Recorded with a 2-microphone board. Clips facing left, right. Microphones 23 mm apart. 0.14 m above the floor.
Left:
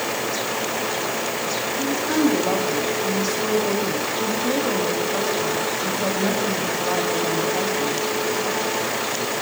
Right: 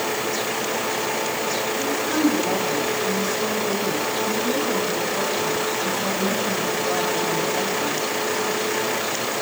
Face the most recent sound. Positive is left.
turn(degrees=45)  # may be behind; listen again after turning